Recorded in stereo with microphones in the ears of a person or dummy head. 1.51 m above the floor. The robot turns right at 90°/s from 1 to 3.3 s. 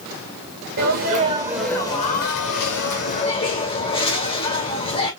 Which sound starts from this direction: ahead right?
A sneeze, at 0.8 s.